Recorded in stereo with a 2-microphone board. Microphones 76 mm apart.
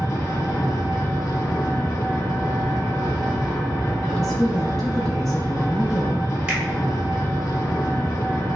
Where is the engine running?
50° left (ahead or behind), 1.2 m.